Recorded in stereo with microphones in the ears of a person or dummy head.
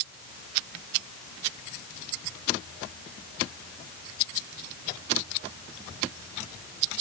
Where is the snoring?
I don't hear snoring.